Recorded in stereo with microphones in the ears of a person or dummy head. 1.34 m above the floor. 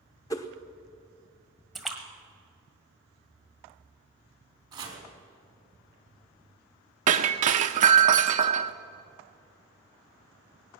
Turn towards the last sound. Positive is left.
turn(degrees=-40)  # may be behind; listen again after turning